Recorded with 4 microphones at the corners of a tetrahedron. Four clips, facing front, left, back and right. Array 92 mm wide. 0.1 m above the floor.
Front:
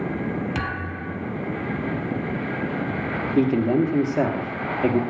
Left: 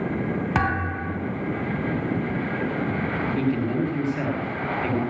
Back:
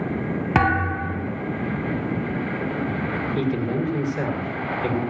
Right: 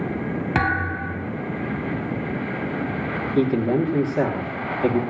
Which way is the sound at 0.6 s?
165° right.